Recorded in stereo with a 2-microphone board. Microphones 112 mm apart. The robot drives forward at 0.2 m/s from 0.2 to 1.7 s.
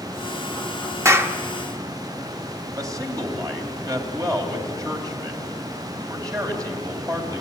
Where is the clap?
25° right (ahead or behind), 1.1 m.